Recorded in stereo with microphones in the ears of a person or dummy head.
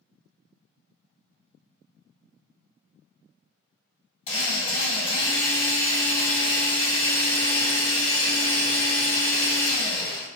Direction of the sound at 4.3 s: 35° left (ahead or behind).